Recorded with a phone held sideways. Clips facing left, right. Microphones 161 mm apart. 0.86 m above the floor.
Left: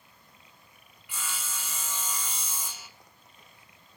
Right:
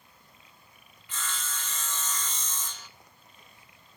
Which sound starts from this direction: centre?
Sawing, at 1.1 s.